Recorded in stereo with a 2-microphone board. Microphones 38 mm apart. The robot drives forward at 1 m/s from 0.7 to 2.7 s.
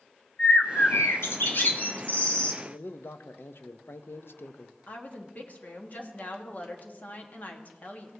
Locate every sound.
0.4 s a bird: 65° left (ahead or behind), 1.1 m; by 2.5 s 35° left (ahead or behind), 1.8 m
2.6 s a man speaking: 75° left (ahead or behind), 0.6 m
4.9 s a woman speaking: 45° left (ahead or behind), 1.4 m